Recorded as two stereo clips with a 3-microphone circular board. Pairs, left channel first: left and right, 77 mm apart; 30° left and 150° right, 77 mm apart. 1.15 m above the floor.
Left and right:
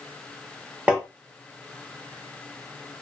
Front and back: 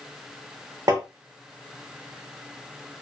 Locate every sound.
0.9 s tapping: 165° right, 1.0 m